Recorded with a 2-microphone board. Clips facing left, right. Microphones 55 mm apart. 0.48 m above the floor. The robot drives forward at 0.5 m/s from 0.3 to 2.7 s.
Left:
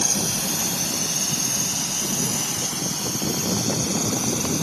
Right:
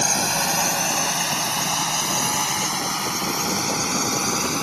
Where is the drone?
65° right (ahead or behind).